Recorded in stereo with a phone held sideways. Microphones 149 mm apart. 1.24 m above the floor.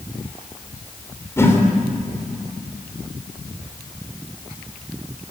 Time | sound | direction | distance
1.4 | a whoosh | 15° left (ahead or behind) | 3.5 m